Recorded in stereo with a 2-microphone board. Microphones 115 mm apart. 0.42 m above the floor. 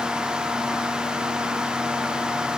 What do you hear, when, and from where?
Only background noise.